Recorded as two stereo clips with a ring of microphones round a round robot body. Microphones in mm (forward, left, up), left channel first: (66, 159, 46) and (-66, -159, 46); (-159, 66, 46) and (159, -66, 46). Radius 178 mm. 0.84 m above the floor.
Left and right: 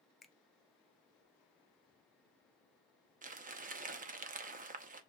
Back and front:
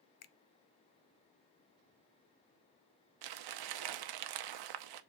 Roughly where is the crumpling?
Ahead right.